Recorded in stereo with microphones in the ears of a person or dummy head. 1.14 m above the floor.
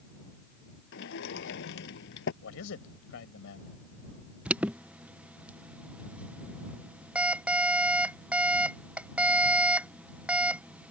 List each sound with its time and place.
0.9 s a sliding door: 65° left (ahead or behind)
2.4 s a man speaking: 70° left (ahead or behind)
4.5 s an alarm: 10° right (ahead or behind)